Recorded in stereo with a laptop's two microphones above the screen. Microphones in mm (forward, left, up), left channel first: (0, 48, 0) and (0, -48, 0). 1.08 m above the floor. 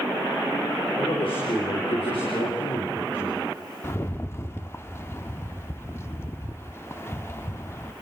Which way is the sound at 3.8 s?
25° left (ahead or behind).